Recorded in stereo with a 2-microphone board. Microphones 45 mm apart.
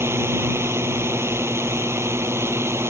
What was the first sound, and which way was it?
A drone, 75° right (ahead or behind).